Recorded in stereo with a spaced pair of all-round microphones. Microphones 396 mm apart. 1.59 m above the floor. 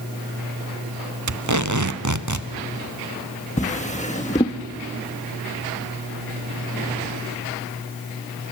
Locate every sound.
1.3 s tape being pulled: 50° right (ahead or behind), 0.6 m
3.6 s a drawer: 20° left (ahead or behind), 1.0 m